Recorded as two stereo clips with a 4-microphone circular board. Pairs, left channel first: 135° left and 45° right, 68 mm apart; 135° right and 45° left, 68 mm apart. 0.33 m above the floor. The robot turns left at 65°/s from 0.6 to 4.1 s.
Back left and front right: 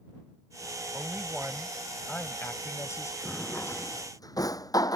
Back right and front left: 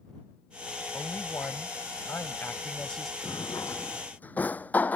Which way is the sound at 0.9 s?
85° right.